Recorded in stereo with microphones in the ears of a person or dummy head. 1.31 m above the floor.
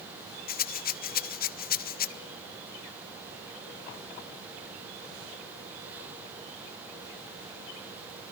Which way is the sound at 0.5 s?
45° left (ahead or behind).